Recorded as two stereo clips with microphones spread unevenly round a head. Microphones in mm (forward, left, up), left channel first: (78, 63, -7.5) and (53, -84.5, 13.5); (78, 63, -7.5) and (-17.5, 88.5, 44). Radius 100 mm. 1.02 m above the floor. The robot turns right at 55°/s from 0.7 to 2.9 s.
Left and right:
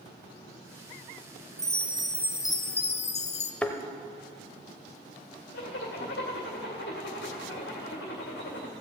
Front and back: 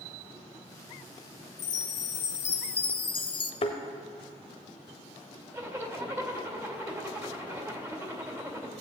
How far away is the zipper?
About 2 m.